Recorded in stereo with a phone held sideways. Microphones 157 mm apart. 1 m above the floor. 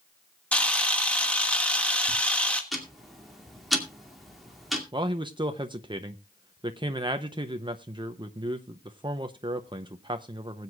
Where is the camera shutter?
5° left (ahead or behind), 1.5 m.